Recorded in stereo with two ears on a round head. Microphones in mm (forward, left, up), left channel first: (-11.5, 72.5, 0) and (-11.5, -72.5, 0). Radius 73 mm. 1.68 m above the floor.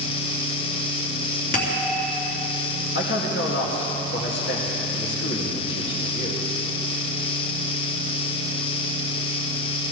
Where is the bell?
60° left (ahead or behind), 3.5 m.